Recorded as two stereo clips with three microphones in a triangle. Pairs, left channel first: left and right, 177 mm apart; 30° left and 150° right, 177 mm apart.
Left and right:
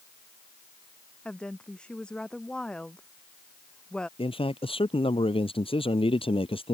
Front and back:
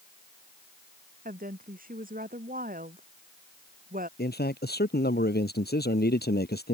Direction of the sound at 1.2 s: 175° left.